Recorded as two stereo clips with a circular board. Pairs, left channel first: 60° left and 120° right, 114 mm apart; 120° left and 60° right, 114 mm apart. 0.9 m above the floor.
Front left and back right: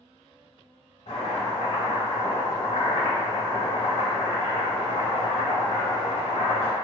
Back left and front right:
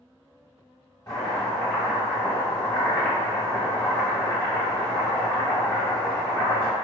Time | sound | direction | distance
1.1 | chopping | 60° left | 1.2 m